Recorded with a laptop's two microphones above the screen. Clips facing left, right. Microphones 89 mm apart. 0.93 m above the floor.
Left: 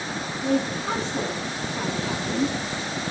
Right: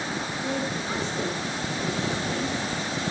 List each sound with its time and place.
0.4 s a woman speaking: 85° left, 8.5 m